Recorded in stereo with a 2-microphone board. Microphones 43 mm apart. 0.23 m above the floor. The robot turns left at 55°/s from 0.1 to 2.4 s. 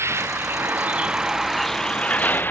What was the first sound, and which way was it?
A vehicle, 100° right.